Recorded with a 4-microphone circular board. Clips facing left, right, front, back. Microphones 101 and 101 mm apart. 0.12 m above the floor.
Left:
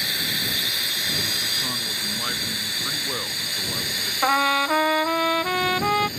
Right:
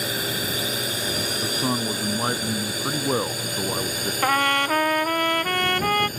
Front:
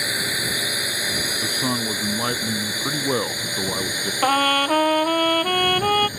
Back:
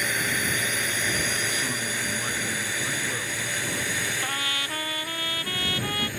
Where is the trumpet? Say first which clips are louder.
Left 1 dB, front 13 dB; 5° left.